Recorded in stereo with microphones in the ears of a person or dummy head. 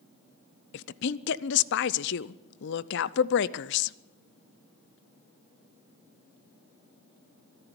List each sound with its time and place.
0.7 s a woman speaking: 55° left (ahead or behind), 0.5 m